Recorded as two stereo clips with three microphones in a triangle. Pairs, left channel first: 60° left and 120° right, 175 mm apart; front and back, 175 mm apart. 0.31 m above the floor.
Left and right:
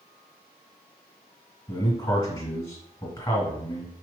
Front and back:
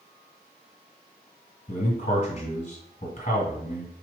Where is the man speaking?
10° left, 1.5 m.